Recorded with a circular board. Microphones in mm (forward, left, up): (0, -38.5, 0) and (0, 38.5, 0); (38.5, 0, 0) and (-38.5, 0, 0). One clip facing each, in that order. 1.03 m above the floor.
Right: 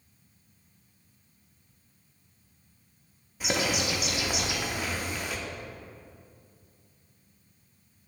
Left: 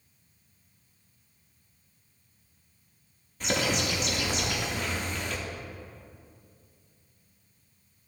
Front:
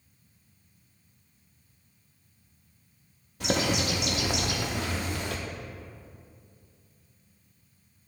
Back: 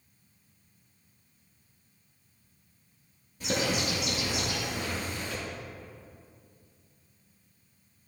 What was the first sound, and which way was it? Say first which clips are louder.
A bird: even, front 2 dB; 10° right.